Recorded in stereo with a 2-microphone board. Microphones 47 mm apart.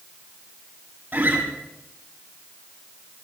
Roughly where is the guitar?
Right.